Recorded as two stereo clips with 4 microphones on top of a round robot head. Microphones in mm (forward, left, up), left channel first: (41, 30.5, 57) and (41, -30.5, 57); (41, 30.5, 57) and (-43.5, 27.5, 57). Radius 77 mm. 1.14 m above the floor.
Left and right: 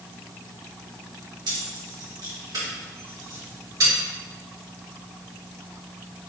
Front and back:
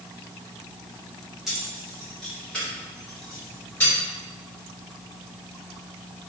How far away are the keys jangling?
About 1.6 m.